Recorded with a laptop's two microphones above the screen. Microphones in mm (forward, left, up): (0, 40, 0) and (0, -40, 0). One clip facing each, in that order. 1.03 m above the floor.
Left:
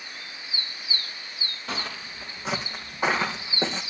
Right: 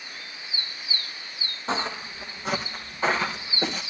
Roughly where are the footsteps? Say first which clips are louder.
Right 6 dB; right.